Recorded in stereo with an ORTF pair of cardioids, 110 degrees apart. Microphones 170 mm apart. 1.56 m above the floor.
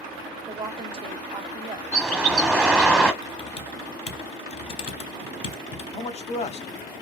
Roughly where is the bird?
Ahead.